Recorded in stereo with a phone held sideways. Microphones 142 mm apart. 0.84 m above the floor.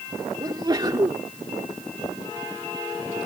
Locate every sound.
0.4 s a sneeze: 30° right (ahead or behind)